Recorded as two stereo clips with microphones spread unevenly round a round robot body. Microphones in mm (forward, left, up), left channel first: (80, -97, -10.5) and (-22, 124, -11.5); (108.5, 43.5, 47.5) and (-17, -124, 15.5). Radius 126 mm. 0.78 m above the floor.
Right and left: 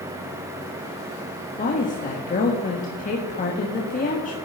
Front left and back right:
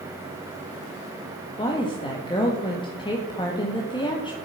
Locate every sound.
1.6 s a woman speaking: 15° right, 1.4 m